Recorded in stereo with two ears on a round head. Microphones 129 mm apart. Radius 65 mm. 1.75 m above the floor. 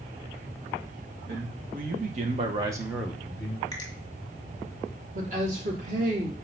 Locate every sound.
1.3 s a man speaking: 70° right (ahead or behind), 2 m; by 3.6 s 25° left (ahead or behind), 1.4 m
3.7 s a finger snap: 25° left (ahead or behind), 2.5 m
5.2 s a woman speaking: 55° right (ahead or behind), 2.0 m